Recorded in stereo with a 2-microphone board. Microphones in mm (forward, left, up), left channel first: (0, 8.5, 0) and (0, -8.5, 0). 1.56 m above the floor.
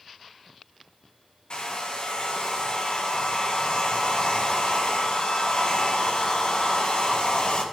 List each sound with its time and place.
1.5 s a hair dryer: 50° left (ahead or behind), 1.8 m